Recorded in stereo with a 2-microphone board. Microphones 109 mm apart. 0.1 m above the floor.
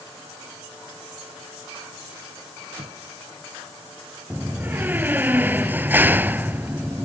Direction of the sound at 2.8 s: 65° right (ahead or behind).